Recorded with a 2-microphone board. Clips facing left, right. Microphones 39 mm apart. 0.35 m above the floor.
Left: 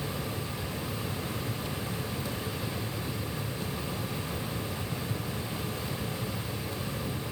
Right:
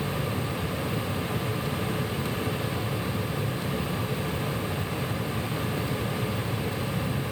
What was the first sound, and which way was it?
Only background noise.